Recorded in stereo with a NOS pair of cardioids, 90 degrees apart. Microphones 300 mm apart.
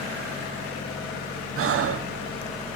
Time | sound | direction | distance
1.6 | breathing | 50° right | 1.0 m